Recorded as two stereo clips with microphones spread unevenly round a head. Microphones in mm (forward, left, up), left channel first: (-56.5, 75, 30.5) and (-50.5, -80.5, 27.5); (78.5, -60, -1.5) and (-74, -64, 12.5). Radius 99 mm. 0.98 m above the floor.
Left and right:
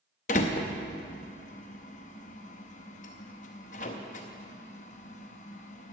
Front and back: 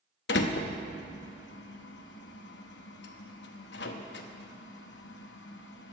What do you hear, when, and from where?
0.3 s a door slam: 40° left, 0.7 m